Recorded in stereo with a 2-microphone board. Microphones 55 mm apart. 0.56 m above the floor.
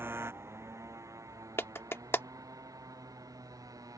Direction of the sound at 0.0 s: 40° right (ahead or behind).